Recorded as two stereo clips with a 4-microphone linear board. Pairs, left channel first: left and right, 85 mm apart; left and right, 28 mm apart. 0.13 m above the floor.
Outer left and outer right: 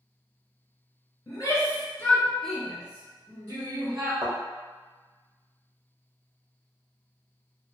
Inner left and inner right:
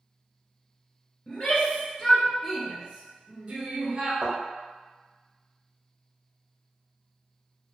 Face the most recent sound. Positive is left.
turn(degrees=-40)  # may be behind; listen again after turning